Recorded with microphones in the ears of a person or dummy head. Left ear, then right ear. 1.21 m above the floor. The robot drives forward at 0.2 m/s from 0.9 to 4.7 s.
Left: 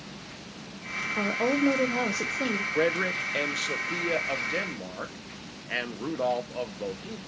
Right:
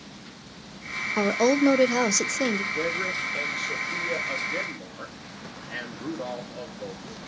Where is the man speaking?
50° left (ahead or behind), 0.8 m; by 7.2 s 35° left (ahead or behind), 1.0 m.